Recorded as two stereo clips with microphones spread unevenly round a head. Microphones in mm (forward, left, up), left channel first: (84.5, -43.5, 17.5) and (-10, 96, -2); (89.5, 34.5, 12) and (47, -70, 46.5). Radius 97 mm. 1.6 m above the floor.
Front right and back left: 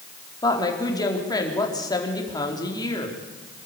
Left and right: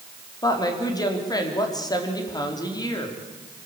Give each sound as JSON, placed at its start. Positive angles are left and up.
{"t": 0.4, "sound": "a woman speaking", "azimuth_deg": 10, "distance_m": 4.5}